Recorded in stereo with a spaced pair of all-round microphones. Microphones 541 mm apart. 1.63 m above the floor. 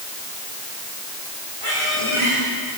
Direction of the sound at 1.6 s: 70° right (ahead or behind).